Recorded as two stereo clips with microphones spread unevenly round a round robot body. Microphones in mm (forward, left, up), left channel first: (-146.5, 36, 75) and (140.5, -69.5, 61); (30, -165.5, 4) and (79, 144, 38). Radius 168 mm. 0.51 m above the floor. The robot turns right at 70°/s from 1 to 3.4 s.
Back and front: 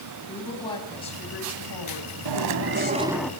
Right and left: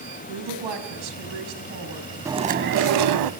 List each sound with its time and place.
0.3 s a woman speaking: 85° left, 4 m; by 3.2 s 120° right, 4 m
2.2 s chewing: straight ahead, 0.7 m; by 3.3 s 75° left, 0.7 m